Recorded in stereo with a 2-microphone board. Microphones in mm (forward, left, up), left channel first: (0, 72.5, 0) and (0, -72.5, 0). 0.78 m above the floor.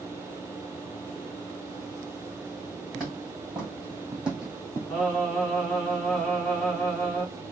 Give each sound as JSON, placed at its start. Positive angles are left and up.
{"t": 2.9, "sound": "footsteps", "side_deg": -5, "distance_m": 3.0}
{"t": 4.9, "sound": "singing", "side_deg": 5, "distance_m": 2.0}